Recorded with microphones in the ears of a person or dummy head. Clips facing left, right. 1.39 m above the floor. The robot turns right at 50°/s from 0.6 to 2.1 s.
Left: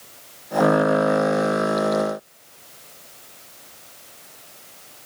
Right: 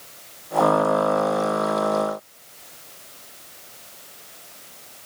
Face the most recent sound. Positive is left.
No sound to turn to.